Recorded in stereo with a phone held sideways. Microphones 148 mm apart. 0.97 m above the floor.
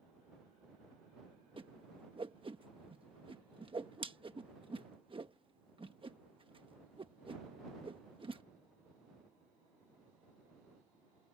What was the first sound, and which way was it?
A whoosh, 40° right (ahead or behind).